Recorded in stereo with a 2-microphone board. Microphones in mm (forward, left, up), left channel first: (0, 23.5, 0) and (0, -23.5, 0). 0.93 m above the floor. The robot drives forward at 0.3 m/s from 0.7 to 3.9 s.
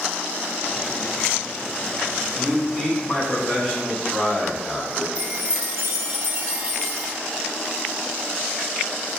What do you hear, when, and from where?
2.4 s a man speaking: 25° left (ahead or behind), 0.9 m; by 5.0 s 15° left (ahead or behind), 1.3 m
5.2 s a chime: 60° right (ahead or behind), 0.5 m